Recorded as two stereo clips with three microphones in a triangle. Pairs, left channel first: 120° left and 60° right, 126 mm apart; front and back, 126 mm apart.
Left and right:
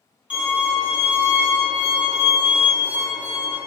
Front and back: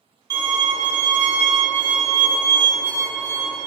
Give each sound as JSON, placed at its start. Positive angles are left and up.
{"t": 0.3, "sound": "a violin", "azimuth_deg": -135, "distance_m": 1.1}